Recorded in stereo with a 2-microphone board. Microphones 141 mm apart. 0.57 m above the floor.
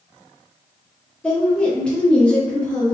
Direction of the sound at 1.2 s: 10° left (ahead or behind).